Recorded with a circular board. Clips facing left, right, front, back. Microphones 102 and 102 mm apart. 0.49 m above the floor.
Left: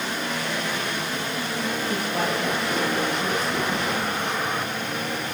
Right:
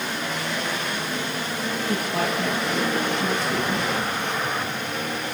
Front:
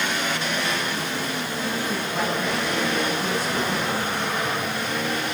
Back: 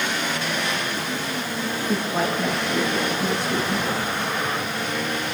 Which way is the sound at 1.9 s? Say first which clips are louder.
Right 2 dB, back 2 dB; 110° right.